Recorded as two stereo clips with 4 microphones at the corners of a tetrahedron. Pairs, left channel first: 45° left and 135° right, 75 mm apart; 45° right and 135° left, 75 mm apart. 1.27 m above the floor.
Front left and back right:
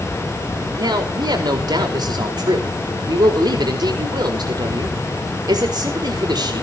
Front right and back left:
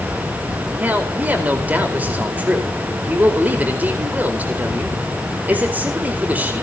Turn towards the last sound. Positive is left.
turn(degrees=-155)